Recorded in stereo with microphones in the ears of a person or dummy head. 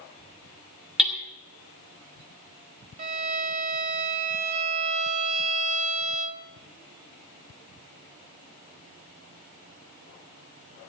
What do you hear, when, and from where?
1.0 s hammering: centre (ahead or behind), 2 m
3.0 s a violin: 40° right (ahead or behind), 0.7 m